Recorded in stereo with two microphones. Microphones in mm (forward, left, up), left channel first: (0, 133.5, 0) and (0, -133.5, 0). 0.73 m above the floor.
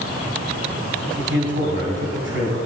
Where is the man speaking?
45° right (ahead or behind), 6.5 m.